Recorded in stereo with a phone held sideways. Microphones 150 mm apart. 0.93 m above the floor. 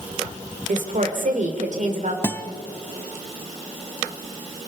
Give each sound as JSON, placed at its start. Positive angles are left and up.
{"t": 0.7, "sound": "a woman speaking", "side_deg": -60, "distance_m": 3.0}
{"t": 2.2, "sound": "a guitar", "side_deg": 15, "distance_m": 0.9}